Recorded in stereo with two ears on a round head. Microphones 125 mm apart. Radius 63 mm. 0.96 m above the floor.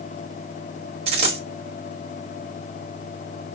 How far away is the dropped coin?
About 1.5 m.